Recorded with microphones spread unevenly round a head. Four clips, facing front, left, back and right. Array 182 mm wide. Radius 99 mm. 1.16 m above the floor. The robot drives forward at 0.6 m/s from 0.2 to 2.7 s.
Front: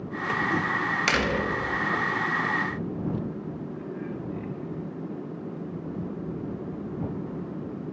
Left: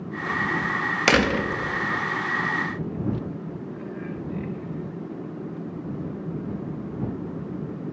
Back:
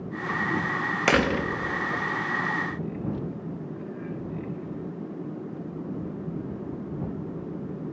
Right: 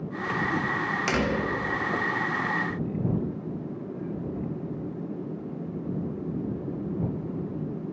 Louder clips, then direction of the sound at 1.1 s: Left 7 dB, back 5 dB; 145° left.